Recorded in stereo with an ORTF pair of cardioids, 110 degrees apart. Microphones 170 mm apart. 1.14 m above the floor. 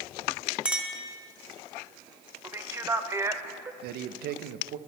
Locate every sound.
0.7 s a clink: 5° right, 1.0 m
2.4 s a man speaking: 15° right, 0.8 m
3.8 s a man speaking: 70° right, 0.6 m